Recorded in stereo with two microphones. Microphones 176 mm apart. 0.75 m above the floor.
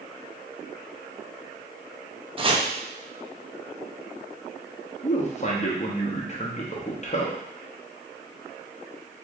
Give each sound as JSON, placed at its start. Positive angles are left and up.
{"t": 2.4, "sound": "chopping", "side_deg": -30, "distance_m": 0.6}
{"t": 5.0, "sound": "a man speaking", "side_deg": 40, "distance_m": 0.8}